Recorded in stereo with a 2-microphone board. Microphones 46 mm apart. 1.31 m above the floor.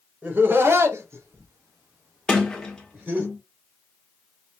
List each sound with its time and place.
0.2 s laughter: 40° right (ahead or behind), 1.0 m; by 3.3 s 45° right (ahead or behind), 2.5 m
2.3 s a sliding door: 15° left (ahead or behind), 1.3 m